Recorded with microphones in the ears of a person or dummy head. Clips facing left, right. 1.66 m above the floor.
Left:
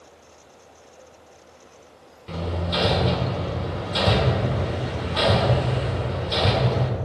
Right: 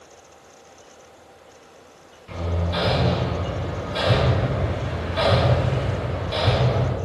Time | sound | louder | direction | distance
2.3 | hammering | even | 50° left (ahead or behind) | 1.3 m